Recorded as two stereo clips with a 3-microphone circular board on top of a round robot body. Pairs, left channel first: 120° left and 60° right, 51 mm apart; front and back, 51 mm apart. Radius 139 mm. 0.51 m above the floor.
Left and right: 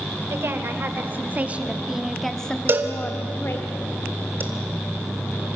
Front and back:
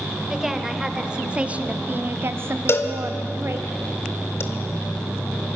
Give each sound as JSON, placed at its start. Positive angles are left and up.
{"t": 0.3, "sound": "a woman speaking", "azimuth_deg": -95, "distance_m": 2.5}
{"t": 2.7, "sound": "a cowbell", "azimuth_deg": -25, "distance_m": 2.5}